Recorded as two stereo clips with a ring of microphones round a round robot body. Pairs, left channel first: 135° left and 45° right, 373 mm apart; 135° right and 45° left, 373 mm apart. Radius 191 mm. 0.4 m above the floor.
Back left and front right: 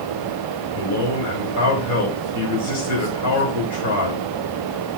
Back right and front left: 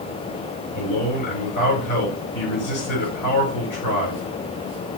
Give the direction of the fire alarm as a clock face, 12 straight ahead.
No fire alarm in this recording.